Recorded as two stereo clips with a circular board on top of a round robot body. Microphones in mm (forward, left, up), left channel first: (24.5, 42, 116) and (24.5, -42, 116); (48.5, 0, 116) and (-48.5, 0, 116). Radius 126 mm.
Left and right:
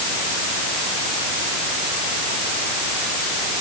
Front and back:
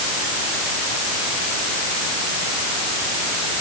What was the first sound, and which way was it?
Only background noise.